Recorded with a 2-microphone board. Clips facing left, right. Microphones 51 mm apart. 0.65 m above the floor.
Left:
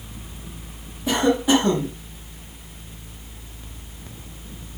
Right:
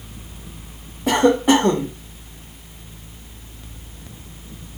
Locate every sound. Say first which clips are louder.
1.1 s a cough: right 4 dB; 50° right (ahead or behind), 1.0 m